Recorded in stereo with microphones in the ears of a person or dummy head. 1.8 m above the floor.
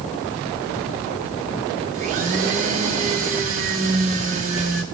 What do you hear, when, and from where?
1.9 s a blender: 45° right (ahead or behind), 1.0 m